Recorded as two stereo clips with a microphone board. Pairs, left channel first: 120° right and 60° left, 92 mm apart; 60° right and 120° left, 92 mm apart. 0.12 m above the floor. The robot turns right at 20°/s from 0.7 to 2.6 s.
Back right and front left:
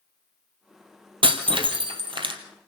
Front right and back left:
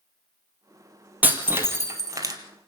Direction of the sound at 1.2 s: 50° left.